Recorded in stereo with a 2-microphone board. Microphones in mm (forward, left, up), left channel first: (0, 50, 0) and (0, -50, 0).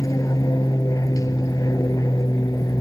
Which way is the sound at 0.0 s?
35° left (ahead or behind).